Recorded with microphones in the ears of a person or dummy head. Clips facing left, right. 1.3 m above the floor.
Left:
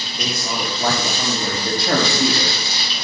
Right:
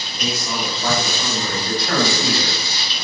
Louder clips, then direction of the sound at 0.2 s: Even; 55° left (ahead or behind).